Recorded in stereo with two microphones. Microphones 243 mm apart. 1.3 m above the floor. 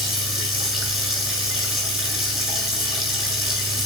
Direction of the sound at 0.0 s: Centre (ahead or behind).